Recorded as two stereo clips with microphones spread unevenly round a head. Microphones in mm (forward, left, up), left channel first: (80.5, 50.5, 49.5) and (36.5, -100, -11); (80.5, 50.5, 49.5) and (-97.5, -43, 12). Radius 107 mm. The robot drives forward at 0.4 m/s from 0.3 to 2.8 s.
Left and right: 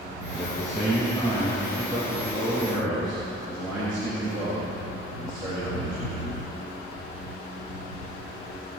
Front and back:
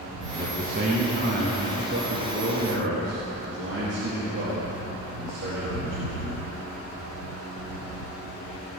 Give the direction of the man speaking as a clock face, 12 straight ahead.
7 o'clock.